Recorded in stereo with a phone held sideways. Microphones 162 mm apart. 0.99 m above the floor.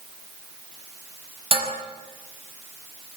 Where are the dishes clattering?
35° right (ahead or behind), 5 m.